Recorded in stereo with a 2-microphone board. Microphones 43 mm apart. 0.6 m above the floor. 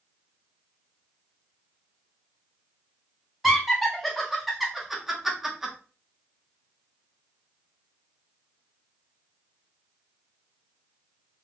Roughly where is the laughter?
Centre.